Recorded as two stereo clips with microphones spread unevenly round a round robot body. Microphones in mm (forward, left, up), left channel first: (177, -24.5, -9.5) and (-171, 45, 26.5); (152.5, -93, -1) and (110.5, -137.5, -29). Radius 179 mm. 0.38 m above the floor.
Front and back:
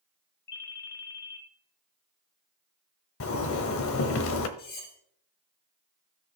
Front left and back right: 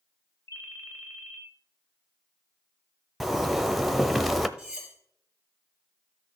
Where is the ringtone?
30° left, 2.0 m.